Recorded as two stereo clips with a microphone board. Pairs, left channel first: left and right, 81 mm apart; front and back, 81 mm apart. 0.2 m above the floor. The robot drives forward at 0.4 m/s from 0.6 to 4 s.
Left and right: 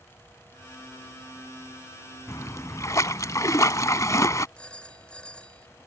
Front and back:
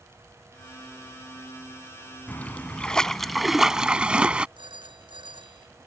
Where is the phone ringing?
170° left.